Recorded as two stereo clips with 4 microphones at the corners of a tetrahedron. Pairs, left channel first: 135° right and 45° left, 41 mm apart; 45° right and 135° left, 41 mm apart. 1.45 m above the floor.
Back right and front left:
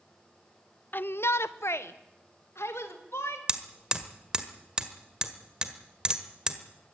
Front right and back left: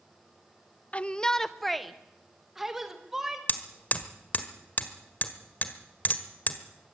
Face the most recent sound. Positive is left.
turn(degrees=-20)